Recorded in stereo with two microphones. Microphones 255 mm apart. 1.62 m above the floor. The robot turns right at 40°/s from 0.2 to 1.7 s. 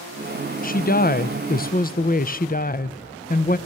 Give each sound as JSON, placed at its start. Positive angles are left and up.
{"t": 0.6, "sound": "a woman speaking", "azimuth_deg": 65, "distance_m": 0.6}